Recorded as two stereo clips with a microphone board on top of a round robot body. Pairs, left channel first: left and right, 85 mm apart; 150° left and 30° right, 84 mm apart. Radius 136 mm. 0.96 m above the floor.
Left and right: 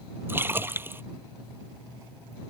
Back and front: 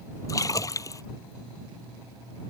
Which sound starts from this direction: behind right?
A splash, at 0.3 s.